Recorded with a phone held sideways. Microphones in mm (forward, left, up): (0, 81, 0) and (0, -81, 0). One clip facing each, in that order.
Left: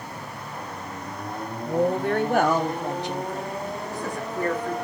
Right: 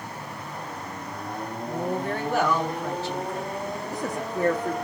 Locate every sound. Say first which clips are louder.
1.6 s a woman speaking: left 6 dB; 70° left (ahead or behind), 1.1 m; by 4.7 s 30° right (ahead or behind), 1.6 m